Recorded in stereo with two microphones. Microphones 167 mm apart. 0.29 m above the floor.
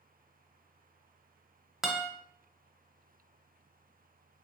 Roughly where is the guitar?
Centre.